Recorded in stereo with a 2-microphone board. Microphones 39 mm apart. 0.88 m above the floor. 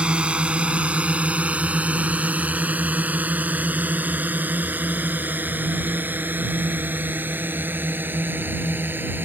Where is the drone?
30° right (ahead or behind); by 9.2 s 60° right (ahead or behind).